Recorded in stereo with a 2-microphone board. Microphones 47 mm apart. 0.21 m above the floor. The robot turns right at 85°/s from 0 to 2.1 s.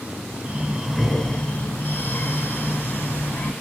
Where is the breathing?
40° right, 1.0 m; by 3.5 s 100° left, 1.0 m.